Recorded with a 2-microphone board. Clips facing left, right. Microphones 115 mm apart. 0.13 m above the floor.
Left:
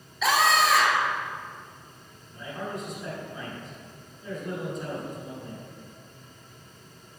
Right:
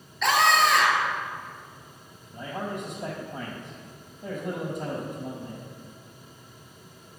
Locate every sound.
0.2 s a scream: 5° left (ahead or behind), 2.5 m
2.3 s a man speaking: 65° right (ahead or behind), 5 m